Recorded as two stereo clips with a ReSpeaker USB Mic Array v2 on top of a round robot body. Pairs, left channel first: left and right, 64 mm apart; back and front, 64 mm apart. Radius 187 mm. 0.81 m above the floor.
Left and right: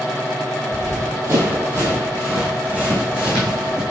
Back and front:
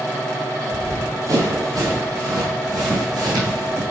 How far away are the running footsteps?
About 1.5 m.